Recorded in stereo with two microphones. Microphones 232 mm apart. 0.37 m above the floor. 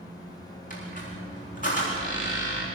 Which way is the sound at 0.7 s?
35° left (ahead or behind).